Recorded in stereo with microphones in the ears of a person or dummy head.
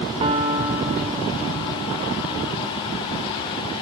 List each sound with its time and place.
0.2 s a piano: 35° right (ahead or behind), 2.5 m